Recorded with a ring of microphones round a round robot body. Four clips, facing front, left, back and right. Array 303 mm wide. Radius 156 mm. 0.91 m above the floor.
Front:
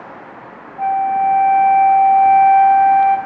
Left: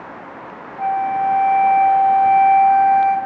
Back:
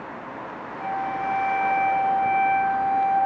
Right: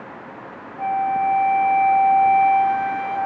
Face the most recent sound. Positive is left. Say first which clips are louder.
# left 2 dB, front 12 dB
turn(degrees=20)